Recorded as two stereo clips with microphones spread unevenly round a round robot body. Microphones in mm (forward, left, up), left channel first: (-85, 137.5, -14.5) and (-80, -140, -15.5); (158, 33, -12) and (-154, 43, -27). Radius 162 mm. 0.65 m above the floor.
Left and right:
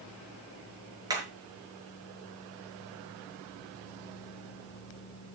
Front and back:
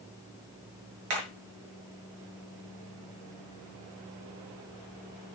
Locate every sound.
1.1 s hammering: 165° right, 6.5 m